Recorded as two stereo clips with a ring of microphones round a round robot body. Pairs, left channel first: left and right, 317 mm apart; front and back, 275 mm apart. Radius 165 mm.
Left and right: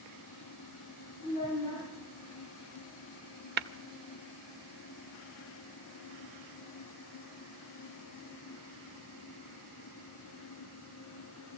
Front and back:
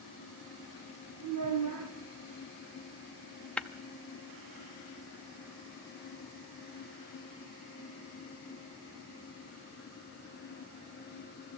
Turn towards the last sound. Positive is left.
turn(degrees=-80)